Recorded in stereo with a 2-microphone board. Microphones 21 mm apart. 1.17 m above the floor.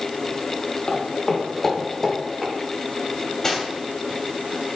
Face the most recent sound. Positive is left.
turn(degrees=25)  # may be behind; listen again after turning